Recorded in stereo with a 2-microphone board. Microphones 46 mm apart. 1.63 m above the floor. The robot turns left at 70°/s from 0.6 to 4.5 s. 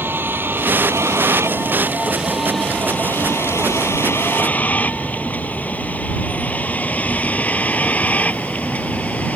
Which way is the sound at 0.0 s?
50° right (ahead or behind).